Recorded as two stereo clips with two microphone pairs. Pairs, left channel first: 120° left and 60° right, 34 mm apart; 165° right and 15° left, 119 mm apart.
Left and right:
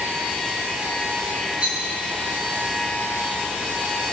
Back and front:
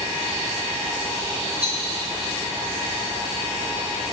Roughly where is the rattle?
Ahead.